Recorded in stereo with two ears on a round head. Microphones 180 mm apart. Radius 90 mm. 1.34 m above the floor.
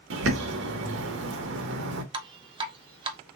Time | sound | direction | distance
0.1 | a bird | 60° right (ahead or behind) | 1.1 m
2.1 | dripping | 25° right (ahead or behind) | 0.7 m